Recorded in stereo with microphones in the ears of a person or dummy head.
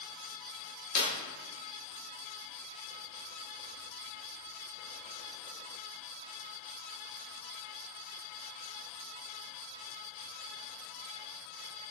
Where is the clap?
55° left (ahead or behind), 2.0 m.